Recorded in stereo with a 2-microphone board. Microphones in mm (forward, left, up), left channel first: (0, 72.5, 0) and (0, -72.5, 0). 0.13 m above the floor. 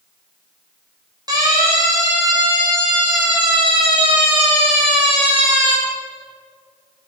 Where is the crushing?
I don't hear crushing.